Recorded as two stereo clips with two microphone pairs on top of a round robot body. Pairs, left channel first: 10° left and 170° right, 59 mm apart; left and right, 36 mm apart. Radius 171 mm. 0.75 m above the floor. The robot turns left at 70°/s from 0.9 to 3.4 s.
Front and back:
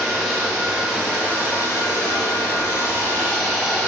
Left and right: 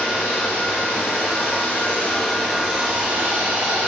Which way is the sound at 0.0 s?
105° left.